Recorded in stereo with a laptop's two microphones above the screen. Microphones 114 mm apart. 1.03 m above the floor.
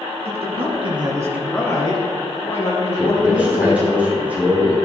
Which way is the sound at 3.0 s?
15° right (ahead or behind).